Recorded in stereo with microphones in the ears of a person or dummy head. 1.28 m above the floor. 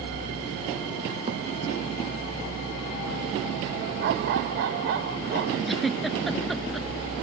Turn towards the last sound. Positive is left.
turn(degrees=0)  # may be behind; listen again after turning